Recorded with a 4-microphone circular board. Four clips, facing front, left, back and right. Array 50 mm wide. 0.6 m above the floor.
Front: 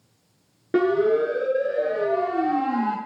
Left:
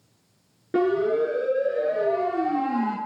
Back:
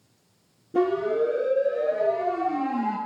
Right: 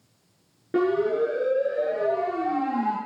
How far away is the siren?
About 7.5 m.